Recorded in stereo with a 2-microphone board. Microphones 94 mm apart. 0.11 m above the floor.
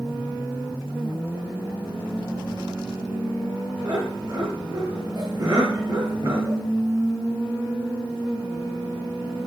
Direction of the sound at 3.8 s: 45° right (ahead or behind).